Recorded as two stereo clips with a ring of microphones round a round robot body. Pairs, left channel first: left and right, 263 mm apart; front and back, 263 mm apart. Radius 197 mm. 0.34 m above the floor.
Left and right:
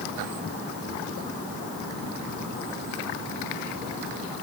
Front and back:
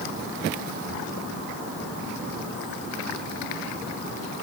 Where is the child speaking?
No child speaking in this recording.